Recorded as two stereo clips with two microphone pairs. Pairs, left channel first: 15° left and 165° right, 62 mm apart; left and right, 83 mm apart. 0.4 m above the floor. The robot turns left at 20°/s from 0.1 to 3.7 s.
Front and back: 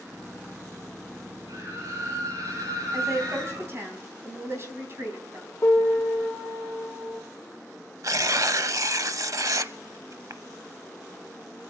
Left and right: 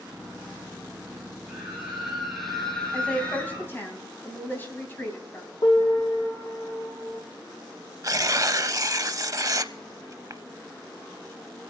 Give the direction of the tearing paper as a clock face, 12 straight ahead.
5 o'clock.